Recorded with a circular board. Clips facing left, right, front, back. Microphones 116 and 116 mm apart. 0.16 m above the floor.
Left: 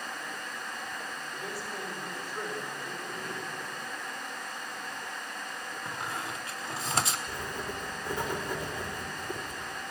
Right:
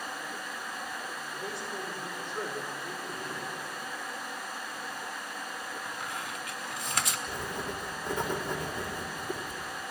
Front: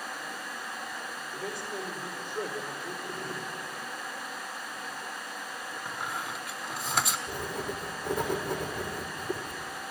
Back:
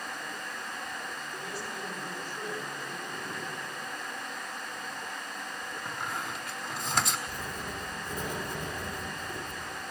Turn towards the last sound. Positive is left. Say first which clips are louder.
# right 1 dB, front 4 dB
turn(degrees=-20)